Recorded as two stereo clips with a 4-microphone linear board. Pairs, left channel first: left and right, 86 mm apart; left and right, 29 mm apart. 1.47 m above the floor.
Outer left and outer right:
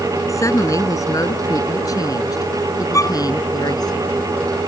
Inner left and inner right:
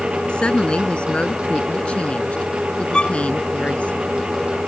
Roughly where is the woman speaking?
Left.